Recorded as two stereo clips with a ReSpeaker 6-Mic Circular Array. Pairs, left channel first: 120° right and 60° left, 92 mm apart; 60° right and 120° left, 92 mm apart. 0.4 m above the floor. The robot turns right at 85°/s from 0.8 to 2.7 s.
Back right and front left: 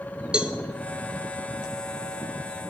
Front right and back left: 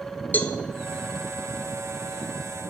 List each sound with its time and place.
0.3 s a cowbell: 10° right, 0.8 m